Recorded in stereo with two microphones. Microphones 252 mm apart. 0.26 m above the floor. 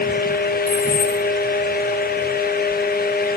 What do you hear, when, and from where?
0.7 s keys jangling: 20° right (ahead or behind), 3 m